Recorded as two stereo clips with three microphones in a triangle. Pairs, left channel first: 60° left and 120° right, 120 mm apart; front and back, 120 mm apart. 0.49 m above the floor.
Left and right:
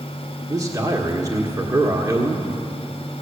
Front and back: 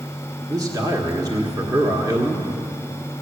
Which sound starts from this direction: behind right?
A man speaking, at 0.5 s.